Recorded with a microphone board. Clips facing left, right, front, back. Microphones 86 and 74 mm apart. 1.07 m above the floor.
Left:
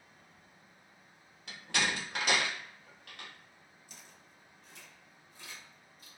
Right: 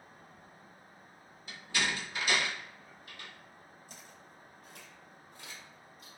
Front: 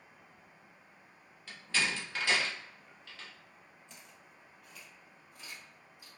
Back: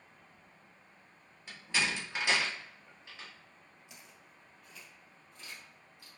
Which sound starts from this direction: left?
A door slam, at 1.5 s.